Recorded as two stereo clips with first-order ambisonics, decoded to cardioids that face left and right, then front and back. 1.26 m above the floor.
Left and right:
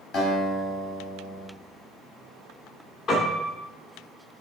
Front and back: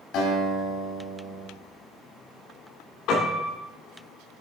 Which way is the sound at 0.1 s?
45° left.